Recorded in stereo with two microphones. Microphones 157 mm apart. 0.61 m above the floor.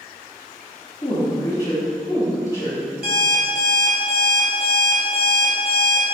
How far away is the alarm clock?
About 1.5 m.